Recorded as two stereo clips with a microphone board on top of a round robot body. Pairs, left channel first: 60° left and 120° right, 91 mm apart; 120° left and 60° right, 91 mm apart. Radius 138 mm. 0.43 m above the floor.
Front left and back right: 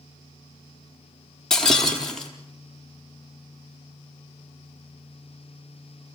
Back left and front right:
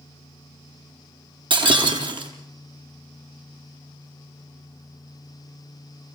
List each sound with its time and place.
1.5 s breaking glass: 25° right, 3.5 m